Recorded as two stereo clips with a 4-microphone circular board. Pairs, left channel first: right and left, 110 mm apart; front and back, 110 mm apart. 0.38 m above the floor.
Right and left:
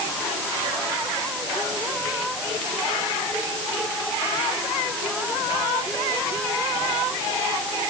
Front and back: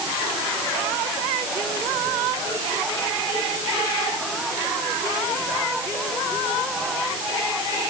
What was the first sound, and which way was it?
Only background noise.